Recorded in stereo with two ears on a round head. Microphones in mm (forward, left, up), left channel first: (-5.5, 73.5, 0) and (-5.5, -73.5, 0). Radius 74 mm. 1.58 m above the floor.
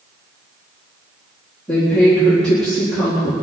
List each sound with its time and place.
1.7 s a woman speaking: 5° left (ahead or behind), 3.5 m